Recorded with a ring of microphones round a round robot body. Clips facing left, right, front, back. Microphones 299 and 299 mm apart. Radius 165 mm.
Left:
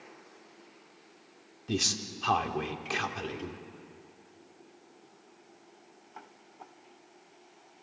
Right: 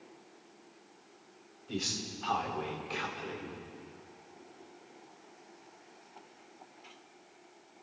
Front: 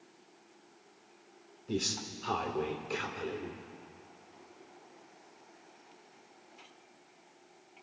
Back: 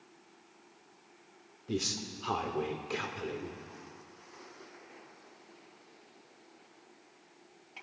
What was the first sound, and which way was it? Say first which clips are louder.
A man speaking: left 5 dB, even; 95° left.